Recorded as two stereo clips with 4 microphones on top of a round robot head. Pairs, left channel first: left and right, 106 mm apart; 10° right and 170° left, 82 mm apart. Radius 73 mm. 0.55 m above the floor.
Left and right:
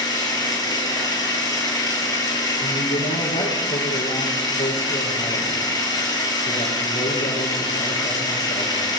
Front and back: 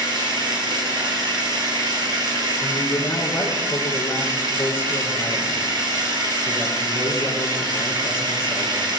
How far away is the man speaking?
About 6.5 m.